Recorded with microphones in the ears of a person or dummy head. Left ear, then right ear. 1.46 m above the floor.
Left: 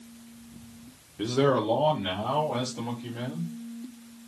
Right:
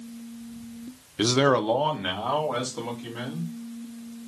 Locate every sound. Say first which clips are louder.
1.2 s a man speaking: right 3 dB; 60° right (ahead or behind), 0.5 m; by 3.5 s 35° right (ahead or behind), 2.5 m